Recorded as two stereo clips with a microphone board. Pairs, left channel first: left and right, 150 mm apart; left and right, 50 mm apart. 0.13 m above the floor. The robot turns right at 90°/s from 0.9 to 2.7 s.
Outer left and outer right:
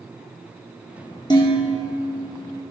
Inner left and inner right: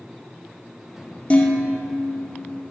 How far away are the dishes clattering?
About 1.9 m.